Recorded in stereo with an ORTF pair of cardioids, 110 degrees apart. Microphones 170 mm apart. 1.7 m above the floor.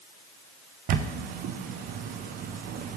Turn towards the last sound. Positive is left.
turn(degrees=-60)